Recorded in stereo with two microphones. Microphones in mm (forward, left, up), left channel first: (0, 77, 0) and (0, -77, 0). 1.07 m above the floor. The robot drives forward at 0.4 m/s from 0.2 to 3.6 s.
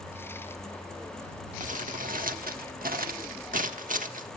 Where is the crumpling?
55° right (ahead or behind), 1.0 m; by 4.3 s 60° right (ahead or behind), 1.0 m.